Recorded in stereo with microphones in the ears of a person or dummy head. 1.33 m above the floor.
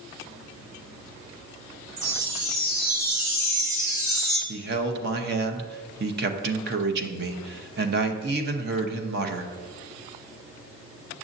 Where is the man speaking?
55° right (ahead or behind), 0.9 m.